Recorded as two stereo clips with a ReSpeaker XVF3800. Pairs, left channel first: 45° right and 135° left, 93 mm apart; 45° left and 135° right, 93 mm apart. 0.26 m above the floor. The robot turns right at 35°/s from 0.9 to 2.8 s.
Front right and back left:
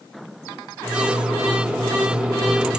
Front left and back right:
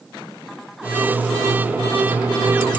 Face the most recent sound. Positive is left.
No sound to turn to.